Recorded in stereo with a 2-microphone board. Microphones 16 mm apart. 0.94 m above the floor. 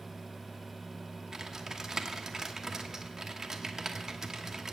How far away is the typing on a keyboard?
About 1.0 m.